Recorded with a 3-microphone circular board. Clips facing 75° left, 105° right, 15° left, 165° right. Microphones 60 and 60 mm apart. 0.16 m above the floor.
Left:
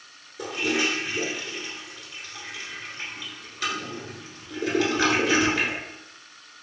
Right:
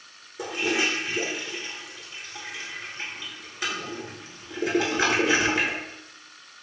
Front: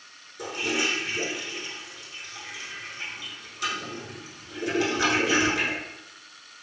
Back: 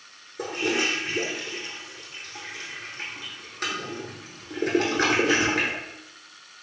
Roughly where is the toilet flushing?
Behind.